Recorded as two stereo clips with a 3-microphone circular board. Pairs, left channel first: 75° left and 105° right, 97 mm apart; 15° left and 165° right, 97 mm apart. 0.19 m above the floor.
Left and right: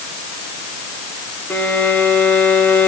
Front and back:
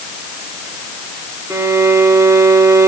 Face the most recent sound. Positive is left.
turn(degrees=140)